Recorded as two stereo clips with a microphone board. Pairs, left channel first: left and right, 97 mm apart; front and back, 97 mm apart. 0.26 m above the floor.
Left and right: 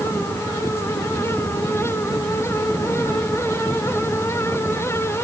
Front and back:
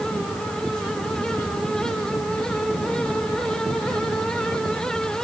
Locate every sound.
Only background noise.